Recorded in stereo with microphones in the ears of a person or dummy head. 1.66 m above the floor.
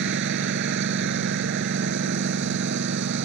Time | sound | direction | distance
0.0 | a lawn mower | 65° right (ahead or behind) | ?